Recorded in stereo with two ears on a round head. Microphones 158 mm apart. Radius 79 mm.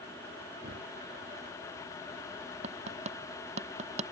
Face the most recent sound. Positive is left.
turn(degrees=-40)  # may be behind; listen again after turning